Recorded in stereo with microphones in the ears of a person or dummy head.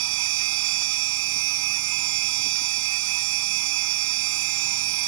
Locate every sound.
0.0 s a machine running: 80° right